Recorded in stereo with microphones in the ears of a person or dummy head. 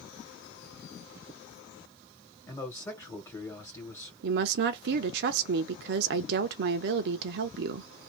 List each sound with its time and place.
2.5 s a man speaking: 15° left (ahead or behind), 1.4 m
4.2 s a woman speaking: 60° right (ahead or behind), 0.6 m